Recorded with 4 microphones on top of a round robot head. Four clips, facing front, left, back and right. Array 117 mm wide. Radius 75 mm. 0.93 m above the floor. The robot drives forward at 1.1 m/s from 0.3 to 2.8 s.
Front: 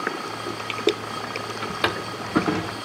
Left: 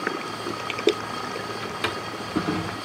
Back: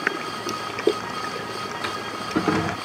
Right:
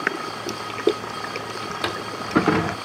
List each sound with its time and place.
1.6 s a drawer: 15° right, 1.0 m; by 2.8 s 140° right, 0.6 m